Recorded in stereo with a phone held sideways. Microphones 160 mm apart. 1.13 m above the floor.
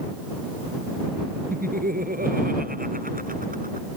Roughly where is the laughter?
Right.